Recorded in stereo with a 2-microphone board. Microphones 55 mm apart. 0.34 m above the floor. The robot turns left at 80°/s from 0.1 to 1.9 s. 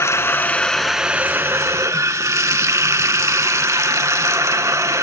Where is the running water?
60° left, 0.7 m; by 5.0 s 85° right, 0.7 m.